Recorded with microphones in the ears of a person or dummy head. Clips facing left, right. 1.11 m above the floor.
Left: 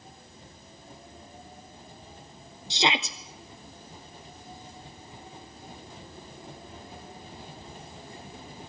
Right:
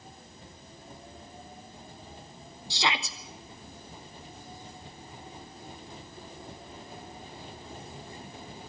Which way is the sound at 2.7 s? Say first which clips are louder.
Left 4 dB; 20° left (ahead or behind).